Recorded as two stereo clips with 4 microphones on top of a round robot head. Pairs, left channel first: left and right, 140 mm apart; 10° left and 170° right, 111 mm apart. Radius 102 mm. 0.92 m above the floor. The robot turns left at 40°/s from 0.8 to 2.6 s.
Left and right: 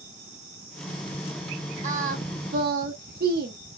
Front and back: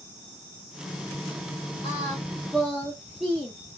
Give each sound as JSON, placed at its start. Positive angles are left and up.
{"t": 1.8, "sound": "singing", "azimuth_deg": -55, "distance_m": 0.8}